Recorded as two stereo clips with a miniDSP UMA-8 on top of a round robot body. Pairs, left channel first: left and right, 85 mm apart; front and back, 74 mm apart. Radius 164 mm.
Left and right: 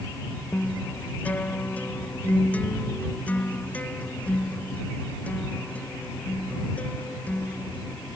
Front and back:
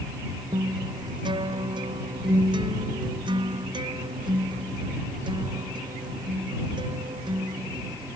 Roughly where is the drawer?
I don't hear a drawer.